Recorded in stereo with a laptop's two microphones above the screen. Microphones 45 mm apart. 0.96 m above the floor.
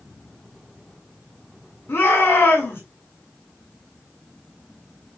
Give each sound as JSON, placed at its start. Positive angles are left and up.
{"t": 1.9, "sound": "a shout", "side_deg": 60, "distance_m": 5.0}